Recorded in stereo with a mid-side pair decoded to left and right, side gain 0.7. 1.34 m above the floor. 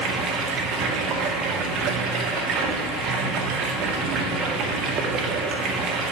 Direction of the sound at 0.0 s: 50° right.